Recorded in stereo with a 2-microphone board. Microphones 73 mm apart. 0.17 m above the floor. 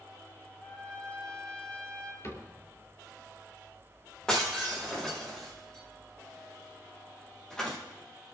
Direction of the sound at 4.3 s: 10° left (ahead or behind).